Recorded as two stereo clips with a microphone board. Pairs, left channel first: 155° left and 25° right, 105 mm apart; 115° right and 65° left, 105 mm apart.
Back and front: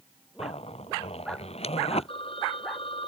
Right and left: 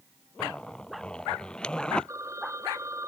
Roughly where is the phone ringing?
Behind left.